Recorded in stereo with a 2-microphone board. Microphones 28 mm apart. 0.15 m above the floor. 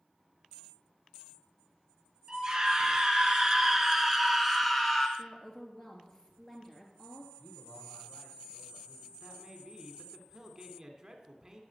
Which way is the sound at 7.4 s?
50° left (ahead or behind).